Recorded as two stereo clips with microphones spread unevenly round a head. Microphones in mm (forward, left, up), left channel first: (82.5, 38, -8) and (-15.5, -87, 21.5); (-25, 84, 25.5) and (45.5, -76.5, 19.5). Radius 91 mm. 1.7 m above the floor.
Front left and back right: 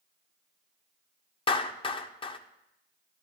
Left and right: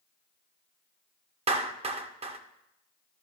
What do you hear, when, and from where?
1.5 s a clap: 10° right, 0.7 m